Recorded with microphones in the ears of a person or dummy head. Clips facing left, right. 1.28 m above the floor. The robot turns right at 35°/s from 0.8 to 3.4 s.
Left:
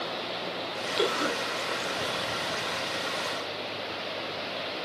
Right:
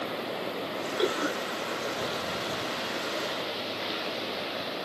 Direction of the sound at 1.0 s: 55° left (ahead or behind).